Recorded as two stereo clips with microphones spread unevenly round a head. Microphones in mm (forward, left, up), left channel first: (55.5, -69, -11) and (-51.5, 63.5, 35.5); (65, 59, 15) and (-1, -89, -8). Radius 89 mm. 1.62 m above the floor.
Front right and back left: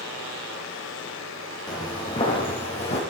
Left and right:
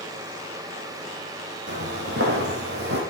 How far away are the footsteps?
About 3 m.